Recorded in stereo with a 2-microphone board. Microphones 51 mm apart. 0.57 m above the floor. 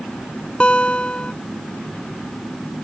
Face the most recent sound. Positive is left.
turn(degrees=20)  # may be behind; listen again after turning